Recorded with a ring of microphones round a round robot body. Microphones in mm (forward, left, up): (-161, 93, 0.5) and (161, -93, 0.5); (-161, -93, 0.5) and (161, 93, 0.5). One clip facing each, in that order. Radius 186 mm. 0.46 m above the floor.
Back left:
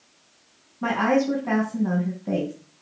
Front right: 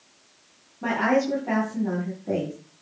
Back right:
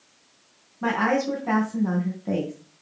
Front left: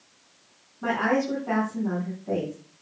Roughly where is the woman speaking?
Behind.